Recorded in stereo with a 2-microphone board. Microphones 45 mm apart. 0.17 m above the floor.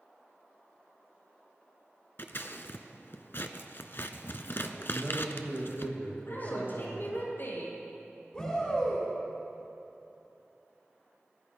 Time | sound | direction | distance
2.2 | scissors | 60° left (ahead or behind) | 0.8 m
4.9 | a man speaking | 40° left (ahead or behind) | 6 m
6.2 | a woman speaking | 60° left (ahead or behind) | 5.5 m
8.3 | a shout | 20° left (ahead or behind) | 2.5 m